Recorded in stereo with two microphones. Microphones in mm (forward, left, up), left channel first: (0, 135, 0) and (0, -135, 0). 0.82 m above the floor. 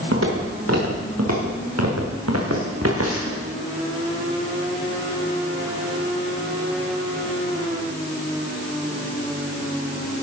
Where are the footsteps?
60° right (ahead or behind), 4.5 m; by 3.4 s 55° right (ahead or behind), 2.5 m.